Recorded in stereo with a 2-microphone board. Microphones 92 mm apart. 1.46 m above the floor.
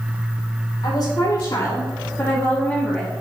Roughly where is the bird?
I don't hear a bird.